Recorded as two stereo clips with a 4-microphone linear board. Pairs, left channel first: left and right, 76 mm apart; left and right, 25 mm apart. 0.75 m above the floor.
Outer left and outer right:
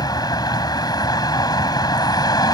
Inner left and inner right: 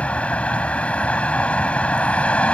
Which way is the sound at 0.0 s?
65° left (ahead or behind).